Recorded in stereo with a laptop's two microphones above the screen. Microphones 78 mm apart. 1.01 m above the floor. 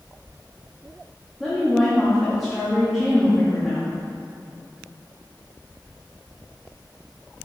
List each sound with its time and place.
1.4 s a woman speaking: centre (ahead or behind), 2 m